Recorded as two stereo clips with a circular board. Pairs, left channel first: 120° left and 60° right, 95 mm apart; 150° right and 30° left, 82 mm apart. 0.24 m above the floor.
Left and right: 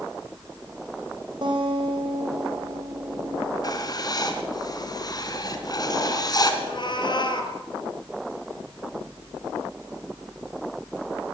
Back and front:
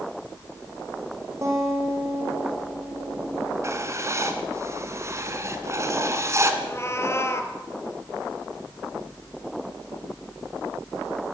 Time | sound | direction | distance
1.4 | a guitar | 25° right | 6.5 m
3.6 | writing | 80° left | 3 m
6.6 | a cat meowing | 155° left | 2.5 m